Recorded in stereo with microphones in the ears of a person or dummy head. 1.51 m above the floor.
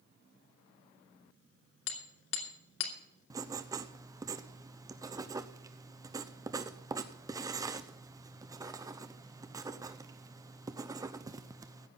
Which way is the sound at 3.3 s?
20° right (ahead or behind).